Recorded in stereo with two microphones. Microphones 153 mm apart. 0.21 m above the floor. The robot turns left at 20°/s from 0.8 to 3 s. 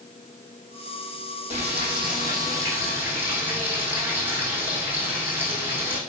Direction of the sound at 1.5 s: 135° right.